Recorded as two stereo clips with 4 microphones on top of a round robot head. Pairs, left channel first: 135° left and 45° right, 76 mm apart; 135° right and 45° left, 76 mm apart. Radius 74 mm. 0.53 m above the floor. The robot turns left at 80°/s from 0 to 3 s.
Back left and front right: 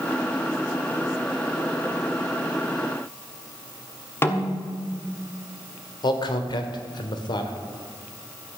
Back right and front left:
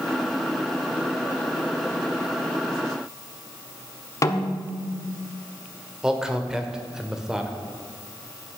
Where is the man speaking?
130° left, 1.7 m.